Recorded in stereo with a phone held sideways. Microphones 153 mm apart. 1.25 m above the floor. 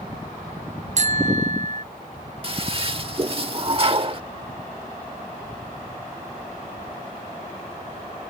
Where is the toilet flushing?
40° right (ahead or behind).